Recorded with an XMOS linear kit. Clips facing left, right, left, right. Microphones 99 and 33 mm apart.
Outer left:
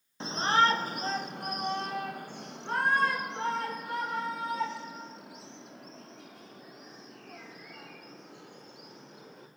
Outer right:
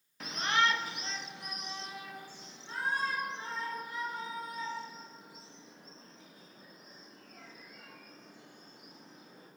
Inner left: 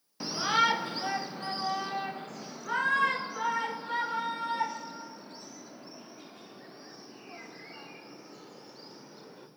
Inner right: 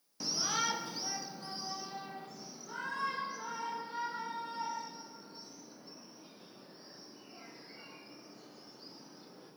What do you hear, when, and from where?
0.2 s a shout: 25° left (ahead or behind), 0.8 m; by 9.5 s 65° left (ahead or behind), 5.5 m